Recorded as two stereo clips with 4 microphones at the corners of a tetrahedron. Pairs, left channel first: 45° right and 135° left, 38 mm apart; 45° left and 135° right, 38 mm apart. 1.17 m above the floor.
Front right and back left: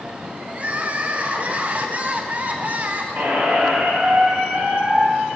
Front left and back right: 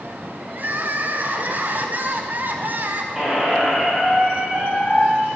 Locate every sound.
0.5 s crying: 175° right, 0.6 m
3.1 s a squeak: 150° left, 2 m